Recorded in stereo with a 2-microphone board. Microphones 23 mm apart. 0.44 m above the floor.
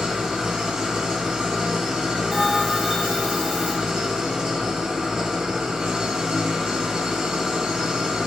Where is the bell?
20° right (ahead or behind), 1.6 m.